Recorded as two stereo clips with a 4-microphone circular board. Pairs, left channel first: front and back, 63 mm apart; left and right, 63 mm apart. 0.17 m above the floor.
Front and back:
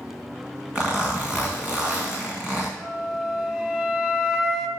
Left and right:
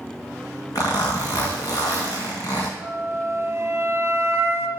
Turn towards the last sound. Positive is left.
turn(degrees=-105)